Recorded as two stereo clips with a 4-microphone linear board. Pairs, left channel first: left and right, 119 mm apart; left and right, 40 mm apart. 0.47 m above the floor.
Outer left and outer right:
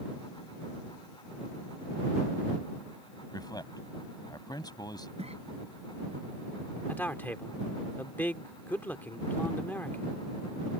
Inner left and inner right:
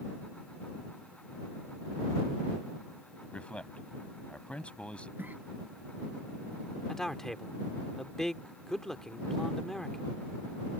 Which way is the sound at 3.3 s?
35° left (ahead or behind).